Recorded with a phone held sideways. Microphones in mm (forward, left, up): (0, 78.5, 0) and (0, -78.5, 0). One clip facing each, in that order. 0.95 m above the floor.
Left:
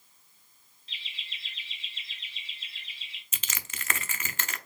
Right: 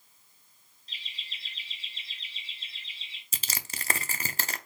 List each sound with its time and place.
0.9 s laughter: 40° right (ahead or behind), 1.4 m; by 3.2 s 30° right (ahead or behind), 2.5 m
3.3 s crushing: 40° right (ahead or behind), 0.5 m